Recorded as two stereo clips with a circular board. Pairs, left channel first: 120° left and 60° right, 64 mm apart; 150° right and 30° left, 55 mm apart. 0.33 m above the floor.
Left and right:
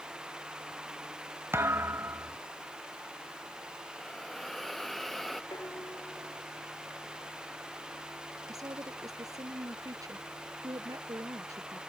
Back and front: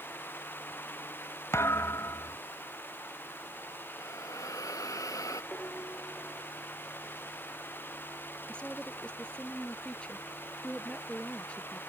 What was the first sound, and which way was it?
A thud, 110° right.